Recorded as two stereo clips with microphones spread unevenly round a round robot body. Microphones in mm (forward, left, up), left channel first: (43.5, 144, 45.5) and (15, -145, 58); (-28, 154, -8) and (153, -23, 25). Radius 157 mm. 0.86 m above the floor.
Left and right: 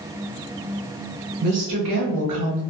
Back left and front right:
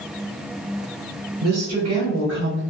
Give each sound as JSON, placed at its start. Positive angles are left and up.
{"t": 1.4, "sound": "a woman speaking", "azimuth_deg": -45, "distance_m": 0.8}